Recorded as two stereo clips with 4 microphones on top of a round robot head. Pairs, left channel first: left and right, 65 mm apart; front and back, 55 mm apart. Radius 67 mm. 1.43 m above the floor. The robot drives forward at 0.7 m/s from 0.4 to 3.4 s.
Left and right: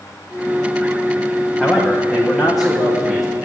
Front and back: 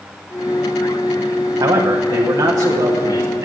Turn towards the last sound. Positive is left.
turn(degrees=180)